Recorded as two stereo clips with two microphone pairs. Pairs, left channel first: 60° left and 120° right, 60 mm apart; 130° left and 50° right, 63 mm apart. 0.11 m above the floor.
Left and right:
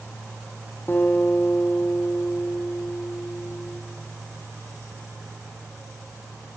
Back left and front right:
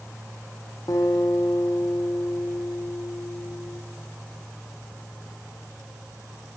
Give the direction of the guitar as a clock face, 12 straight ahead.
8 o'clock.